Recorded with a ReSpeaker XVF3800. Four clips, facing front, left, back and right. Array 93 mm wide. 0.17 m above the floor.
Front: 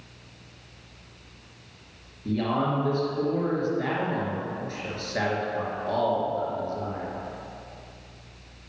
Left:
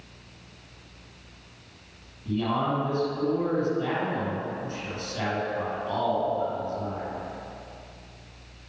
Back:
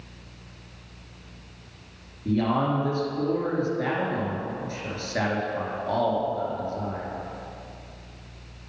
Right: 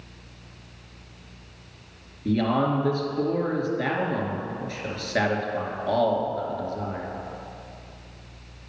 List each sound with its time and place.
2.2 s a man speaking: 95° right, 2.5 m